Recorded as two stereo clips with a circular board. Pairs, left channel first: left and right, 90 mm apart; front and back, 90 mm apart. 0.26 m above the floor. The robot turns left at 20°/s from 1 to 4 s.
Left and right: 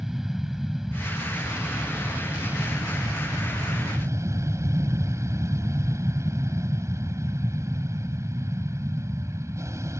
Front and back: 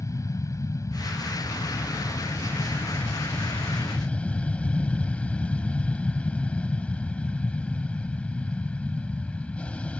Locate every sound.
0.0 s an aircraft: 5° right; by 10.0 s 65° right